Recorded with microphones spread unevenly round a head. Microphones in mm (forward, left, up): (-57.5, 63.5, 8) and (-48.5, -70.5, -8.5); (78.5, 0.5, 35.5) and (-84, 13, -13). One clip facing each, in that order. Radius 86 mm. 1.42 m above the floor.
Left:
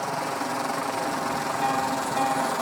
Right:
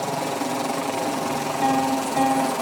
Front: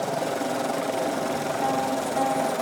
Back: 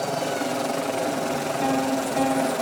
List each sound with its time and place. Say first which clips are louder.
0.0 s a helicopter: right 3 dB, back 1 dB; 110° right; by 2.6 s 125° right
1.6 s a piano: right 6 dB, back 4 dB; 130° right